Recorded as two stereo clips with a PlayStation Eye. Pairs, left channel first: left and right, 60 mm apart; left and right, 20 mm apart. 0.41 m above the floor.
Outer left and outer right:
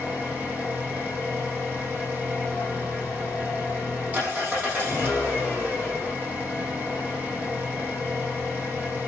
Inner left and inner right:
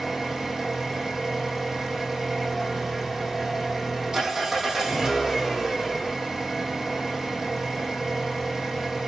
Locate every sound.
0.0 s an engine running: 25° right (ahead or behind), 7 m